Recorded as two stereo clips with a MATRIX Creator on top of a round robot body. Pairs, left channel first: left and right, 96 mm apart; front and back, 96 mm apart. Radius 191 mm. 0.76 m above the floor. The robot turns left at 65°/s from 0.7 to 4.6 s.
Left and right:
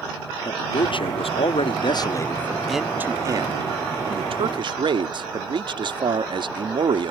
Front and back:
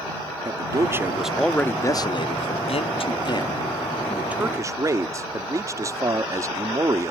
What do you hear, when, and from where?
0.5 s a man speaking: 130° left; by 7.1 s 120° right